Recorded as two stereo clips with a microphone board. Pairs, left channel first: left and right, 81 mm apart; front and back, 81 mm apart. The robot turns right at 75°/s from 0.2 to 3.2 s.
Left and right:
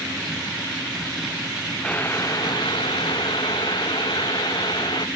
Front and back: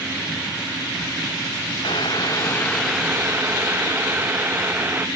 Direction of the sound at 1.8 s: 10° left.